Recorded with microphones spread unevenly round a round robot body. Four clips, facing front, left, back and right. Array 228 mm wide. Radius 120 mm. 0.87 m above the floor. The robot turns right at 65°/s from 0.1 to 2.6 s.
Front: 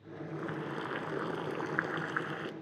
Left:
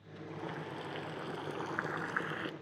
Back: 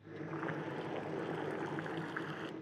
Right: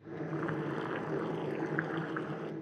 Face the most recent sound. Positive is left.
turn(degrees=75)